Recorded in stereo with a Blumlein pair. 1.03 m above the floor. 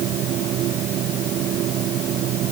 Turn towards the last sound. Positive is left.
turn(degrees=-35)